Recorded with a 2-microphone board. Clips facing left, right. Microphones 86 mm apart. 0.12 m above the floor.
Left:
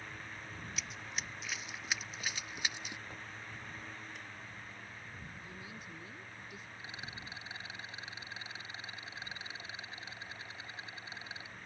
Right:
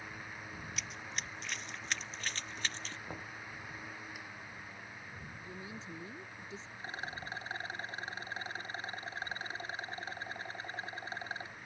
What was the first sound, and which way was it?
Running footsteps, centre (ahead or behind).